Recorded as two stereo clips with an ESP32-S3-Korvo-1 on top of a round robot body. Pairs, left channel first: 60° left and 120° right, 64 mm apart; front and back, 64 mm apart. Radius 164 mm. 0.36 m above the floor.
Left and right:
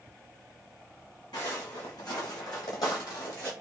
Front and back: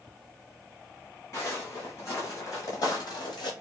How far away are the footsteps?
About 2.0 m.